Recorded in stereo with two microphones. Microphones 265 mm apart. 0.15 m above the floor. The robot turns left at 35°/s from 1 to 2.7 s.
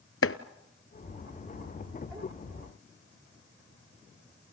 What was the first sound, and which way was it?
Chopping, 55° left (ahead or behind).